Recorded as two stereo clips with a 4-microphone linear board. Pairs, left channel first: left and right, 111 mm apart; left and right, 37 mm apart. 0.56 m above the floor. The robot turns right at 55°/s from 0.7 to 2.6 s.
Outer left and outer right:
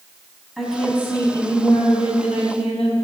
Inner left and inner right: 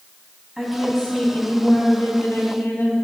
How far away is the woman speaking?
About 4 m.